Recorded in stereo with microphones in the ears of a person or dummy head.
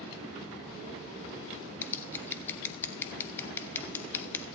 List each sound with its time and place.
1.8 s scissors: 15° left (ahead or behind), 0.5 m